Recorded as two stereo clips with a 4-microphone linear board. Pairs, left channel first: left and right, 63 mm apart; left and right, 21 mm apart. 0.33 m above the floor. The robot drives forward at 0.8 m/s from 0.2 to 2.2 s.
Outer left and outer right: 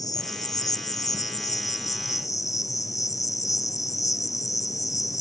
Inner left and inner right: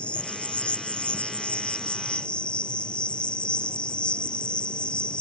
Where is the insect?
80° left; by 5.2 s 65° left (ahead or behind).